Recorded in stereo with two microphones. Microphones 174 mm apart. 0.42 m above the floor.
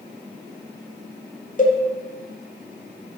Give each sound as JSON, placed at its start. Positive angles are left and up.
{"t": 1.6, "sound": "a cowbell", "side_deg": 45, "distance_m": 0.8}